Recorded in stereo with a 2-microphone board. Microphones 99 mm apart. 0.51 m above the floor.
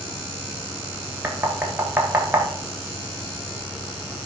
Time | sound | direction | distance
1.2 | knocking | 20° right (ahead or behind) | 1.4 m